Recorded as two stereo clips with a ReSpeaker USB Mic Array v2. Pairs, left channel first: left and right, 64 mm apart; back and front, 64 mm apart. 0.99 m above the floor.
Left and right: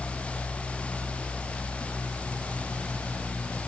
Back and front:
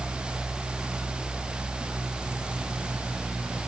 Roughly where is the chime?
No chime in this recording.